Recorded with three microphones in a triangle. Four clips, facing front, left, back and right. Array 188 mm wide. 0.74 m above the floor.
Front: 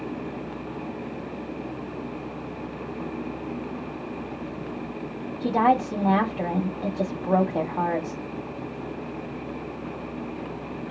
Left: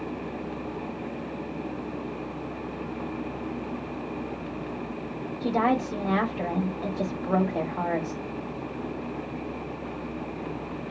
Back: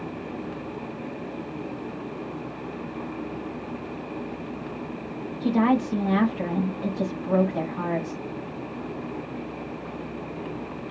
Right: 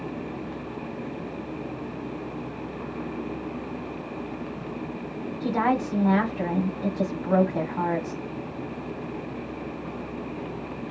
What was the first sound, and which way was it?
A woman speaking, 5° right.